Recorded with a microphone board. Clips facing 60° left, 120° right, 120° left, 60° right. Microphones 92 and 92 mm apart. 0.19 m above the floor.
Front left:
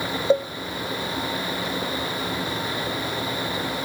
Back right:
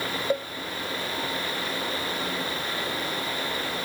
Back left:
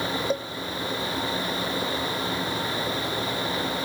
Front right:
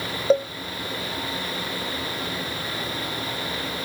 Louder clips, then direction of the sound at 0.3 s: Front left 8 dB, front right 13 dB; 5° right.